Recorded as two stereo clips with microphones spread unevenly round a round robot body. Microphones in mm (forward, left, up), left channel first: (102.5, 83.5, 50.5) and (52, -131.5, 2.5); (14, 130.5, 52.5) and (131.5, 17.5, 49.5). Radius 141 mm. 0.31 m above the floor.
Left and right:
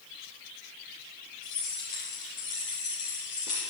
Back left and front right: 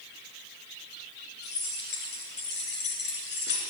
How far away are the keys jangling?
About 5.5 m.